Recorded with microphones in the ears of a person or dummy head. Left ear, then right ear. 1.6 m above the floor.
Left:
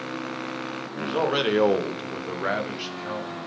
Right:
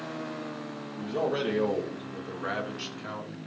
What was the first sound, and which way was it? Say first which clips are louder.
A man speaking: left 5 dB; 50° left (ahead or behind).